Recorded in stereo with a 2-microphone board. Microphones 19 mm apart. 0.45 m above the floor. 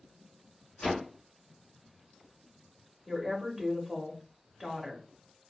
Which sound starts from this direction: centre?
A woman speaking, at 3.1 s.